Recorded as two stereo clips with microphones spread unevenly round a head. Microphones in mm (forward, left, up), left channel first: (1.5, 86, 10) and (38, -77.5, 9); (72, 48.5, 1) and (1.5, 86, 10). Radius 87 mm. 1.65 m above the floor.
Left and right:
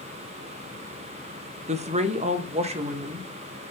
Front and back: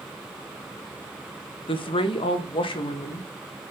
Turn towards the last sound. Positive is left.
turn(degrees=-25)